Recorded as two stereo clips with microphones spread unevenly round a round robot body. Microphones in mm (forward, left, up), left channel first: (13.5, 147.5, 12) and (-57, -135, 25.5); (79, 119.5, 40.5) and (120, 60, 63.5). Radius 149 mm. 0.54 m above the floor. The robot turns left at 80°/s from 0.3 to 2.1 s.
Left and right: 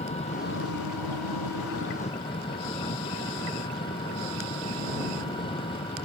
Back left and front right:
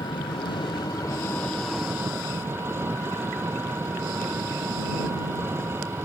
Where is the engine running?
145° left; by 6.1 s straight ahead.